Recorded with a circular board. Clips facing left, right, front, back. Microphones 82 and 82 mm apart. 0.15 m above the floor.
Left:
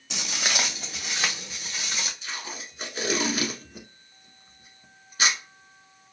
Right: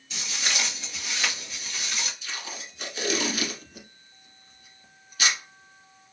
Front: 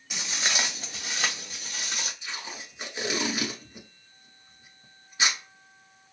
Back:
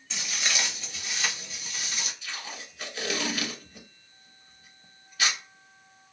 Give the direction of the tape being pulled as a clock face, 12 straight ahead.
10 o'clock.